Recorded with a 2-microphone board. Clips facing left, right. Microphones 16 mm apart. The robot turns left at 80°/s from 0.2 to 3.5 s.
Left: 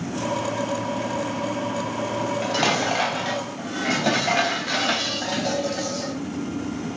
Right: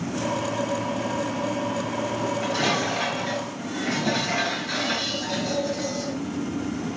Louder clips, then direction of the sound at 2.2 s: Left 3 dB; 175° left.